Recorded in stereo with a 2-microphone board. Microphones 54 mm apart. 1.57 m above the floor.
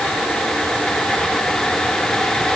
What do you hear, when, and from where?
Only background noise.